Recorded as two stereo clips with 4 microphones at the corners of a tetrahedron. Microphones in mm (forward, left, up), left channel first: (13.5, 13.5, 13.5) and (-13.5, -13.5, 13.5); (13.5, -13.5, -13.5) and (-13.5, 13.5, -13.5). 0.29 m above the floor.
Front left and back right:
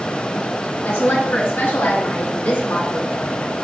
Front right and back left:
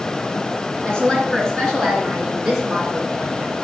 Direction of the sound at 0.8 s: 20° left.